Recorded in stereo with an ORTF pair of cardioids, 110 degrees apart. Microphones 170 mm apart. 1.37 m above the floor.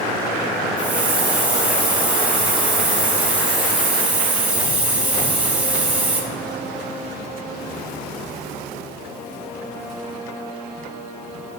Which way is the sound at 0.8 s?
10° right.